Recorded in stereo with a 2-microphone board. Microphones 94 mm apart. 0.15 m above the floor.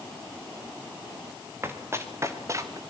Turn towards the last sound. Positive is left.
turn(degrees=-35)  # may be behind; listen again after turning